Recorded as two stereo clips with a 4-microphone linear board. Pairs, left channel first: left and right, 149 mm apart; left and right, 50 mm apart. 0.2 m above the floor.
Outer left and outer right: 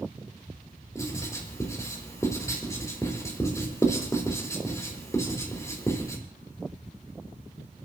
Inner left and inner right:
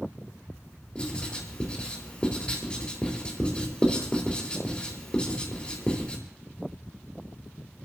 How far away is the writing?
About 4 m.